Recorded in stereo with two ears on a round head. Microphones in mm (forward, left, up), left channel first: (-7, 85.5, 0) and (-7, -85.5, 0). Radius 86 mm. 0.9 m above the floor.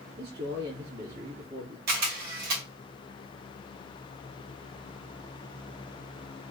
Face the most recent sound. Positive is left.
turn(degrees=-55)  # may be behind; listen again after turning